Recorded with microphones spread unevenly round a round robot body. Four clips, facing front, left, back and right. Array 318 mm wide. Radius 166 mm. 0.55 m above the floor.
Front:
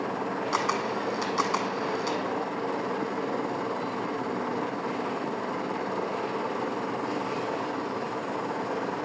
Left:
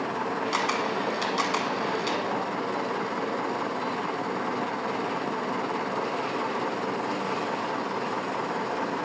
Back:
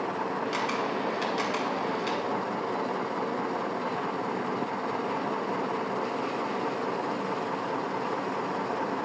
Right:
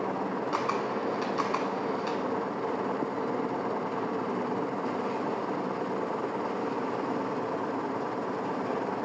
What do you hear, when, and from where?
0.5 s a camera shutter: 35° left, 0.8 m